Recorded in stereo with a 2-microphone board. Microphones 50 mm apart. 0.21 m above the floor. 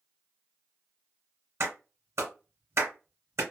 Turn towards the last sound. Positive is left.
turn(degrees=-60)  # may be behind; listen again after turning